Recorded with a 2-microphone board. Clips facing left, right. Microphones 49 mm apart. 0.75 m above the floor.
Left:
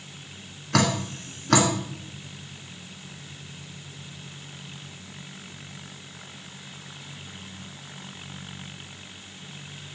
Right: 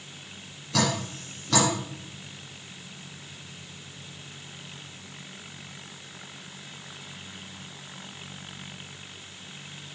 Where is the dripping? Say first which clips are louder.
Left 3 dB; 60° left (ahead or behind), 2.5 m.